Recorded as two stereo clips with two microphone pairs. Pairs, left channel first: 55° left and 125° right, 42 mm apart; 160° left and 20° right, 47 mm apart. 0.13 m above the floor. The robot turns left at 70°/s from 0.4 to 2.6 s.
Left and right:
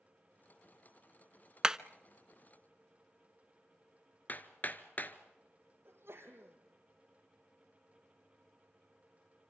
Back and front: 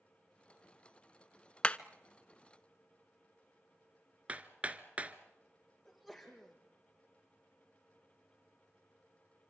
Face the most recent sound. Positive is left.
turn(degrees=-105)